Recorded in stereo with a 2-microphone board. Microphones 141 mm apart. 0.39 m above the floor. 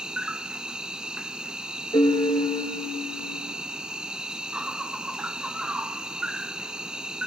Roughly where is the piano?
Left.